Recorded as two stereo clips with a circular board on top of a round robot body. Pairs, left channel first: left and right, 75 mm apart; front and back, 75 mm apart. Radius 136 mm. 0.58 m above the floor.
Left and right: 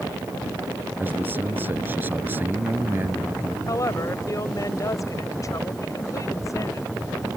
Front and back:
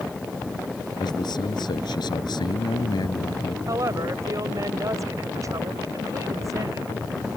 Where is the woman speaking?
135° left.